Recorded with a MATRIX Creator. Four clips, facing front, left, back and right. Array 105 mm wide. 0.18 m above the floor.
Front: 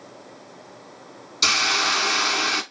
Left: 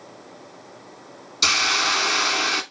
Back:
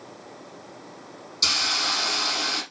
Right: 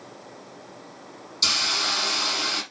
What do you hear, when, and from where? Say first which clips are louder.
1.4 s a hiss: left 6 dB, front 6 dB; 50° left, 0.8 m